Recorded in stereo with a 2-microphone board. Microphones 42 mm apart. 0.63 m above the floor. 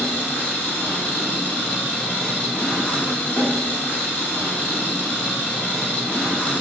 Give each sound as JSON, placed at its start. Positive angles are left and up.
{"t": 0.0, "sound": "an engine running", "side_deg": 40, "distance_m": 0.8}